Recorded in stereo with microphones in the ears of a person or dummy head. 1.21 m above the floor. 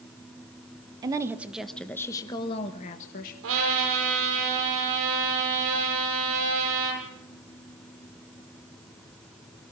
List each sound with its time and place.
1.0 s a woman speaking: 20° right (ahead or behind), 1.3 m; by 3.3 s 45° left (ahead or behind), 1.6 m
3.4 s a trumpet: 70° right (ahead or behind), 9.5 m